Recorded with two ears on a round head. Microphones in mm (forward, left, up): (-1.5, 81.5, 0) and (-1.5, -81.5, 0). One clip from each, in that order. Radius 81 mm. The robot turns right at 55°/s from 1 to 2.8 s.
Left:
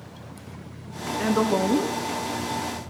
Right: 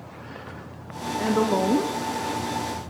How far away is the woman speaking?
About 0.7 m.